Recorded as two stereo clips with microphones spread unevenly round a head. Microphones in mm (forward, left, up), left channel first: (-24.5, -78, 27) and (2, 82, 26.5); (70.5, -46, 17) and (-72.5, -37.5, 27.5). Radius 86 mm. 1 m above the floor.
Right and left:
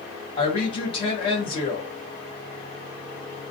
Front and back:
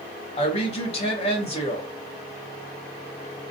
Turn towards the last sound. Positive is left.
turn(degrees=-40)